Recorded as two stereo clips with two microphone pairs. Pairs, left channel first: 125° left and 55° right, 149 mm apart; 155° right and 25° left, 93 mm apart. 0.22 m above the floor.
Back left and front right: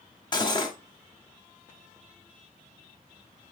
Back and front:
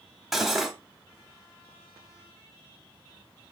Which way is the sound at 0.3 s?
110° left.